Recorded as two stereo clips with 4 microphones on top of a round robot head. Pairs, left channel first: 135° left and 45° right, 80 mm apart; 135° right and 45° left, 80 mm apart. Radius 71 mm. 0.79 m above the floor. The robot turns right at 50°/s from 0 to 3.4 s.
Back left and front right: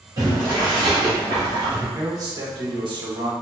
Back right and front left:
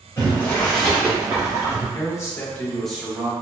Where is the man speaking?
95° right, 1.2 m; by 3.3 s 25° right, 1.2 m.